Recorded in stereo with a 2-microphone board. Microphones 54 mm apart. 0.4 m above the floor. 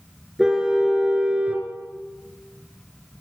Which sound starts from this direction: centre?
A car horn, at 0.4 s.